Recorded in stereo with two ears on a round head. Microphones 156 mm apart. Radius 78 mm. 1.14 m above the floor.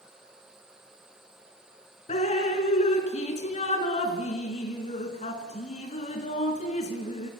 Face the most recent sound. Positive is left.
turn(degrees=40)  # may be behind; listen again after turning